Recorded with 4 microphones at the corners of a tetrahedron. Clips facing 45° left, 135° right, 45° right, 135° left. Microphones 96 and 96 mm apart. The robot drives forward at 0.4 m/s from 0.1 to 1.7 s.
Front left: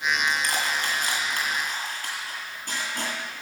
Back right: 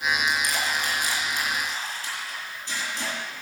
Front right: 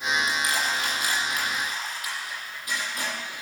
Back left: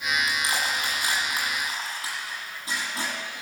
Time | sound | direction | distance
0.3 | crushing | 70° left | 9.5 m